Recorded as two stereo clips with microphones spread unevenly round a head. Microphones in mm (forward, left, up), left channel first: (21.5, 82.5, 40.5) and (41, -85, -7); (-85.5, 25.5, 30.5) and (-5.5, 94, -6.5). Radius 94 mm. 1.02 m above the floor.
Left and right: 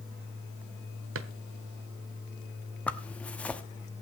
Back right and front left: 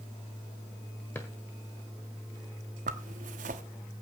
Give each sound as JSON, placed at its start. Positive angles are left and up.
{"t": 1.1, "sound": "a drawer", "azimuth_deg": -70, "distance_m": 1.3}
{"t": 2.9, "sound": "a zipper", "azimuth_deg": 15, "distance_m": 1.1}